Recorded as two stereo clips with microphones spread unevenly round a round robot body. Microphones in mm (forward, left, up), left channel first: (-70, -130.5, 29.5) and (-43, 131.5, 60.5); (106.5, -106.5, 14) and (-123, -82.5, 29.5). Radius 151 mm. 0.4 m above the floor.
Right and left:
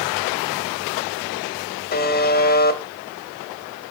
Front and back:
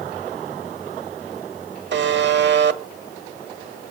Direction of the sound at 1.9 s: 145° right.